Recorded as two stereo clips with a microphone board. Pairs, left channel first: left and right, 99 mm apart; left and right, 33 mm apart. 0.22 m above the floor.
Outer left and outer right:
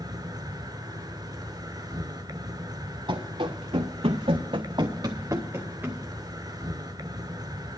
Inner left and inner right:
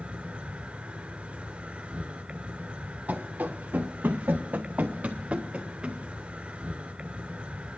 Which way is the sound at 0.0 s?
45° right (ahead or behind).